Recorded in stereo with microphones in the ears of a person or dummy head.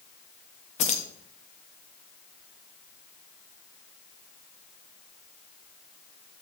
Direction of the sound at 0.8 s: 40° left (ahead or behind).